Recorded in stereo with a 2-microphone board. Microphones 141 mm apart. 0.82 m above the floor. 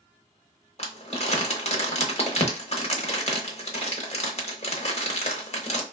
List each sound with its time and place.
0.8 s crumpling: 50° left (ahead or behind), 0.8 m